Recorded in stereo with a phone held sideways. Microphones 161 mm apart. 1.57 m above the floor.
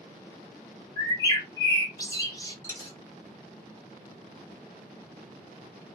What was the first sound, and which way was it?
A bird, 25° left (ahead or behind).